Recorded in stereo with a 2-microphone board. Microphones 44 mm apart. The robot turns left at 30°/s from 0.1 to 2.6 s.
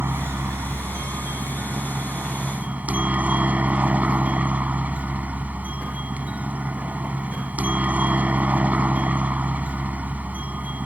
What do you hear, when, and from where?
0.0 s a helicopter: 65° right; by 10.9 s 140° right